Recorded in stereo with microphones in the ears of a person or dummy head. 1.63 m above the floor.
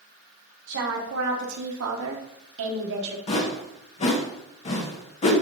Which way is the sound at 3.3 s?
40° left (ahead or behind).